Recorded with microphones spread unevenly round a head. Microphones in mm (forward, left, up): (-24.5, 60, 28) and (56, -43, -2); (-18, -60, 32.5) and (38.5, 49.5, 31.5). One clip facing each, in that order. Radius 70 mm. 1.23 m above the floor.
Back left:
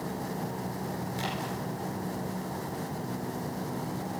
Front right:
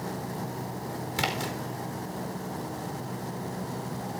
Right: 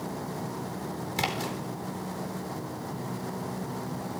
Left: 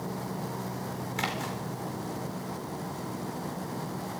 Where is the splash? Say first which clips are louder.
Front right 6 dB, right 3 dB; 60° right, 4 m.